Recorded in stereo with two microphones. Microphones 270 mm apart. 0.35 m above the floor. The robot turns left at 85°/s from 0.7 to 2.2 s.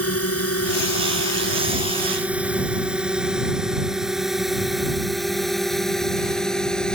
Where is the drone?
60° left (ahead or behind); by 7.0 s 5° left (ahead or behind).